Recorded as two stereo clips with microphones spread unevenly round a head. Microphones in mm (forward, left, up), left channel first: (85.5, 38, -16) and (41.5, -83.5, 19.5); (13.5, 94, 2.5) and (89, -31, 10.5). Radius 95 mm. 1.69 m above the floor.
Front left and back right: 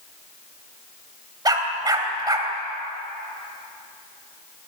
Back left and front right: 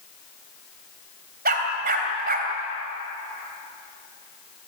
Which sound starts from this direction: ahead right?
A dog barking, at 1.4 s.